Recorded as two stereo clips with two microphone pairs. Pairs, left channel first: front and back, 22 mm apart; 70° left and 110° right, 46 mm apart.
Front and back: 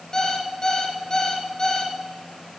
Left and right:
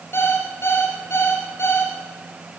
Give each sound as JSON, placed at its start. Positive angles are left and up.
{"t": 0.1, "sound": "an alarm clock", "azimuth_deg": 55, "distance_m": 1.9}